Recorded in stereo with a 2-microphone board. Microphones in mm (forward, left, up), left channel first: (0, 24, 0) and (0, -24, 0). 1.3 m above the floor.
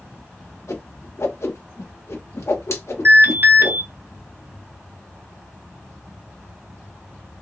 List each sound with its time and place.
0.7 s a whoosh: 70° left (ahead or behind), 1.3 m
3.0 s an alarm: 45° right (ahead or behind), 1.6 m